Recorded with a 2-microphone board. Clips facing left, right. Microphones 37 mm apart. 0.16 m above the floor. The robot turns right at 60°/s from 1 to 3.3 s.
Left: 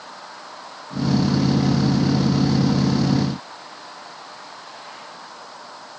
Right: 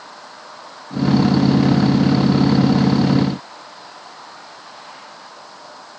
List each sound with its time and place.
Only background noise.